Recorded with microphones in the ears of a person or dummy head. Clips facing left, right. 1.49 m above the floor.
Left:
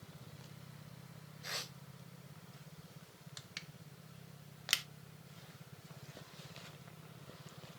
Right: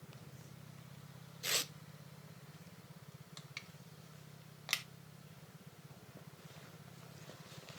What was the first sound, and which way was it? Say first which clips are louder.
Tearing paper: right 5 dB; 40° right (ahead or behind).